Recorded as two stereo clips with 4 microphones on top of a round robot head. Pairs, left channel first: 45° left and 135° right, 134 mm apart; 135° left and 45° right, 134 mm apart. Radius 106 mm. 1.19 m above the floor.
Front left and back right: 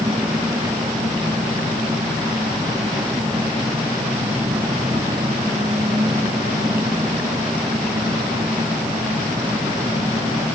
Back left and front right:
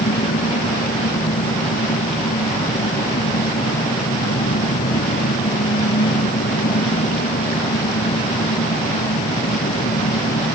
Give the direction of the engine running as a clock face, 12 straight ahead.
7 o'clock.